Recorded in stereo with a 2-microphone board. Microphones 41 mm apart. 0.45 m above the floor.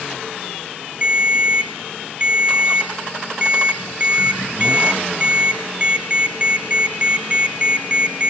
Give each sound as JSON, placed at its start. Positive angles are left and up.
{"t": 1.0, "sound": "a ringtone", "side_deg": -30, "distance_m": 0.6}